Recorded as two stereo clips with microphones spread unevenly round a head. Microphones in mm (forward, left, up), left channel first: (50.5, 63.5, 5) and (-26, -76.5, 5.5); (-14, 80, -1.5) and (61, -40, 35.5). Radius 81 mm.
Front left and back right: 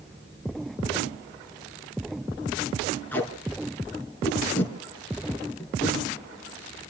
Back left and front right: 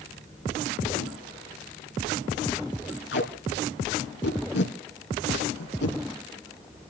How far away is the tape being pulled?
About 4.5 m.